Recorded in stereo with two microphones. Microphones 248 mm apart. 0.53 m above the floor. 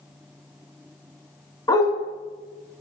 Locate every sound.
1.7 s a dog barking: 15° left (ahead or behind), 2 m